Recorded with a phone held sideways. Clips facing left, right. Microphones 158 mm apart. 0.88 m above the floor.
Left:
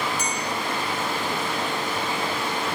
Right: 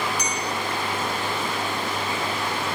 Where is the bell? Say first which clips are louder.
Even; 50° left (ahead or behind), 1.1 m.